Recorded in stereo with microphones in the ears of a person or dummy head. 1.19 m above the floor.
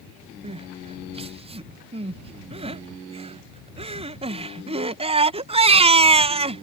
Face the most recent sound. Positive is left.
turn(degrees=-25)  # may be behind; listen again after turning